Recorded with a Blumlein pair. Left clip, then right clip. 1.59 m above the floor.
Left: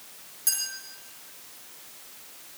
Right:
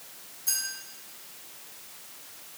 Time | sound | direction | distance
0.5 | a clink | 30° left | 5.5 m